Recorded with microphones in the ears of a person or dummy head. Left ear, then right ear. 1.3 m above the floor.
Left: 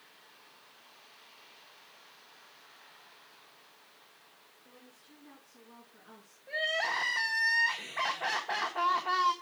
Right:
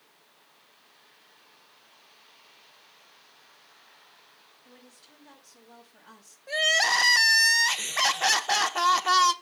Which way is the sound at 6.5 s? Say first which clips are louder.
Right 9 dB; 80° right.